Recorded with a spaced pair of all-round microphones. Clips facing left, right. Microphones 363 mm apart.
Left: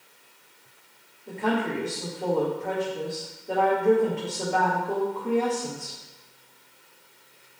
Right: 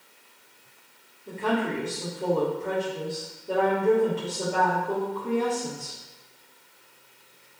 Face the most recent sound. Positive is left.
turn(degrees=-15)  # may be behind; listen again after turning